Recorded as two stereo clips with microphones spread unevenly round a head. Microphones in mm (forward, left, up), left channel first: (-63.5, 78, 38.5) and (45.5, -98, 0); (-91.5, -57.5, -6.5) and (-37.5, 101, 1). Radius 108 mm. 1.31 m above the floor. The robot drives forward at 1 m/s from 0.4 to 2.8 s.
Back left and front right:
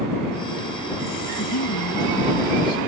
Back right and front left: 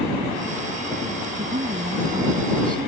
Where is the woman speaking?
130° left; by 2.9 s 135° left.